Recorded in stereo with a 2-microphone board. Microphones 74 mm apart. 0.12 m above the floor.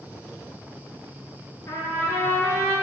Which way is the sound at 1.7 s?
45° left (ahead or behind).